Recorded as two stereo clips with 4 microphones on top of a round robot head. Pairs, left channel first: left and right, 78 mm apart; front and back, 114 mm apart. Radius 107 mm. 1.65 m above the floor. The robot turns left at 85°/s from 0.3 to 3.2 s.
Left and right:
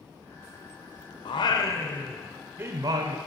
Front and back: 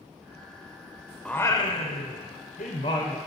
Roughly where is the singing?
Left.